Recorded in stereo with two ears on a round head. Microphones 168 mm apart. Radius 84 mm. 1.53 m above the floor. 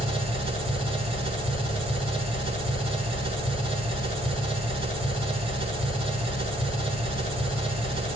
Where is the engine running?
35° right (ahead or behind), 8 m.